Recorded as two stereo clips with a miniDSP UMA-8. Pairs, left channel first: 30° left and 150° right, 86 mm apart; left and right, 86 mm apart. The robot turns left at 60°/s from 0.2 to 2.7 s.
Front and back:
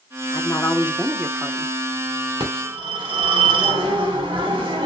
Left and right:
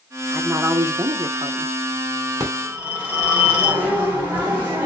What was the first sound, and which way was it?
A woman speaking, 10° right.